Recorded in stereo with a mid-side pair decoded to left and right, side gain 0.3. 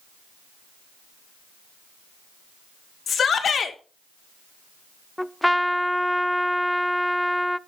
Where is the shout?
70° left, 2 m.